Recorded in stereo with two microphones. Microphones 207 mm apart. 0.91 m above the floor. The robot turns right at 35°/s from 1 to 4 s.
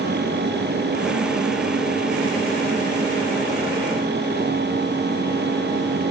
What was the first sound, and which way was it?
Only background noise.